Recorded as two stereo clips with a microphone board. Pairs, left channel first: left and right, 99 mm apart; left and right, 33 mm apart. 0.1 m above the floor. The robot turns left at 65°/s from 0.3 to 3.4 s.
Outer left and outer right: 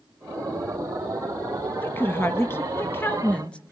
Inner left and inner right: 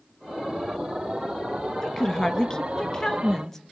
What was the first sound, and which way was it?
A woman speaking, 20° left (ahead or behind).